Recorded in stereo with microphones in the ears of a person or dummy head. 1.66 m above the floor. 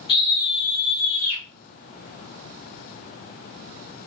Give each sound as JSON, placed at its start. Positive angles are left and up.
{"t": 0.1, "sound": "a scream", "side_deg": 25, "distance_m": 3.5}